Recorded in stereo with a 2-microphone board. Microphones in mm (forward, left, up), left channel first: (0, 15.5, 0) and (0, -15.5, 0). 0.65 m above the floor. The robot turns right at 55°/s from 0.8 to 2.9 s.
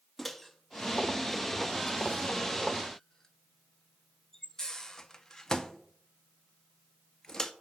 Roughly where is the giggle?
I don't hear a giggle.